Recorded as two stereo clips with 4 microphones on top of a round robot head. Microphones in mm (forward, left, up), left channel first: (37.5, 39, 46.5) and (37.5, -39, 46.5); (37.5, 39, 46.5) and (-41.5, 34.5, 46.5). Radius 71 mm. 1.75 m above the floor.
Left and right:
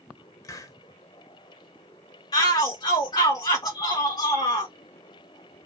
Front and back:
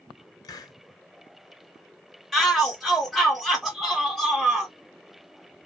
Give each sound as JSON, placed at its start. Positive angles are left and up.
{"t": 0.4, "sound": "a hiss", "azimuth_deg": 45, "distance_m": 0.7}
{"t": 2.3, "sound": "a shout", "azimuth_deg": 90, "distance_m": 0.6}